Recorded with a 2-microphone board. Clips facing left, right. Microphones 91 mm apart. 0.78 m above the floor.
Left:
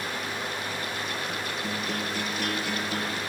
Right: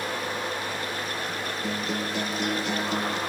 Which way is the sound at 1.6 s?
20° right (ahead or behind).